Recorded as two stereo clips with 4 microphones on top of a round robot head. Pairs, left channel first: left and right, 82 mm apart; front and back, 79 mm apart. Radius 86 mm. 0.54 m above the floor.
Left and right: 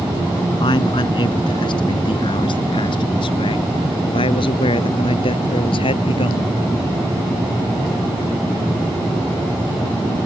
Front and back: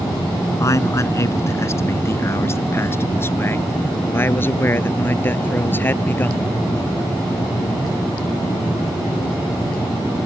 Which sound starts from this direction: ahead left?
A man speaking, at 0.6 s.